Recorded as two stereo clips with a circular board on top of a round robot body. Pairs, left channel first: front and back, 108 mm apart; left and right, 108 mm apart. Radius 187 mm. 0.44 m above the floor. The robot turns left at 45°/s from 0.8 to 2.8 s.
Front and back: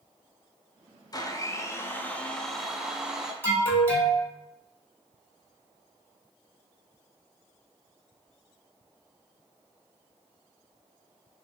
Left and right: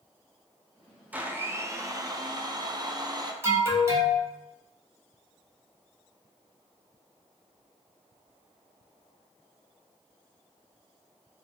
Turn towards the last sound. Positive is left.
turn(degrees=-50)